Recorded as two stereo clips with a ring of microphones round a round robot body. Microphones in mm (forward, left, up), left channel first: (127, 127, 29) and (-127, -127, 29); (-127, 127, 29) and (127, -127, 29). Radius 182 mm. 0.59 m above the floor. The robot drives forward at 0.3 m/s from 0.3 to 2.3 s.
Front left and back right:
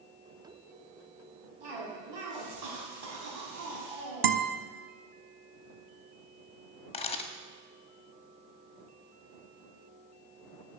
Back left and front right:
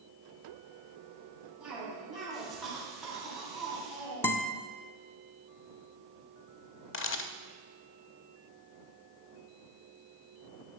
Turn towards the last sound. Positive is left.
turn(degrees=110)